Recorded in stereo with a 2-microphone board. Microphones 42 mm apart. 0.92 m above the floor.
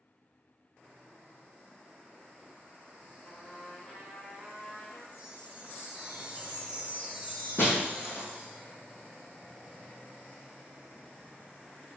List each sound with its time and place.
3.2 s a trumpet: 25° left (ahead or behind), 1.9 m
5.1 s a chime: 30° right (ahead or behind), 1.3 m
7.6 s breaking glass: 65° left (ahead or behind), 2 m